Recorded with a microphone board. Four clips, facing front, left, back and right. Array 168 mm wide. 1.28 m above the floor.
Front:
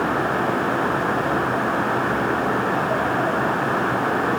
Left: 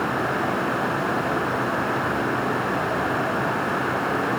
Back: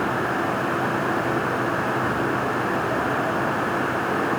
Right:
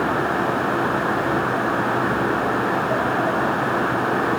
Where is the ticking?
No ticking in this recording.